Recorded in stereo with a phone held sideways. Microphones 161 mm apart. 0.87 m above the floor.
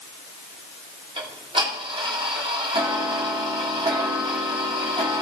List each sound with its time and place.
1.2 s ticking: 30° right (ahead or behind), 2.5 m